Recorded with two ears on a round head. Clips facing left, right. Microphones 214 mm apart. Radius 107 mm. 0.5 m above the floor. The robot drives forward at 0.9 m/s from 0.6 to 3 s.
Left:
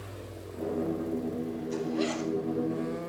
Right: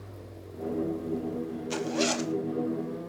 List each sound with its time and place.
1.7 s a zipper: 80° right, 0.9 m; by 2.3 s 50° right (ahead or behind), 1.2 m